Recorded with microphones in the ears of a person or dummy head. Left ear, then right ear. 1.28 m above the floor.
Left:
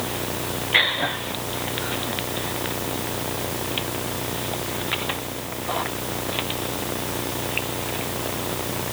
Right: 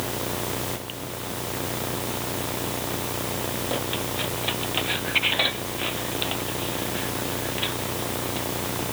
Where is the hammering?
I don't hear hammering.